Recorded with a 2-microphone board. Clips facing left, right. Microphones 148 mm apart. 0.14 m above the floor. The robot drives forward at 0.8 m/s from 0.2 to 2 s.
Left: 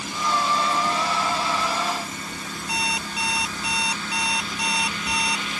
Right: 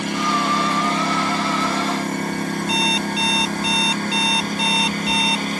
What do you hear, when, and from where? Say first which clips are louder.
0.0 s a lawn mower: right 4 dB; 80° right; by 5.6 s 50° right (ahead or behind)
2.7 s an alarm clock: right 8 dB; 25° right (ahead or behind)